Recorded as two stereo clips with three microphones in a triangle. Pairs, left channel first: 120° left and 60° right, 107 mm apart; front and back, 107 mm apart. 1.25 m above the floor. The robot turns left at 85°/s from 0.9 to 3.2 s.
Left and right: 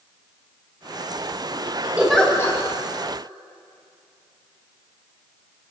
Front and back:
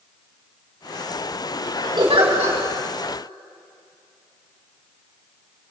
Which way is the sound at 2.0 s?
135° right.